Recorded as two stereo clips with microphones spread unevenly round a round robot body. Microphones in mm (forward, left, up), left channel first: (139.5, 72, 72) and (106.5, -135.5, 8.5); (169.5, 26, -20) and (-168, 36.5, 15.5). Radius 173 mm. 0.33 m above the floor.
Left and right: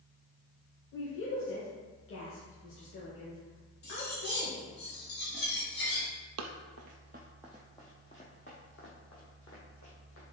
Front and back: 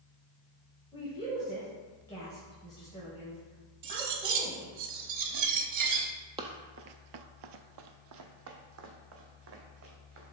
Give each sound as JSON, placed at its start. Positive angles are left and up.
{"t": 0.9, "sound": "a woman speaking", "azimuth_deg": 65, "distance_m": 1.7}
{"t": 3.8, "sound": "cutlery clinking", "azimuth_deg": 140, "distance_m": 0.9}
{"t": 6.4, "sound": "running footsteps", "azimuth_deg": -110, "distance_m": 0.6}